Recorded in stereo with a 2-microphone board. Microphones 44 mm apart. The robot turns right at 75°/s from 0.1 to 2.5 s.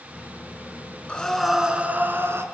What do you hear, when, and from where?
1.1 s breathing: 155° left, 2.5 m; by 2.5 s 105° right, 2.5 m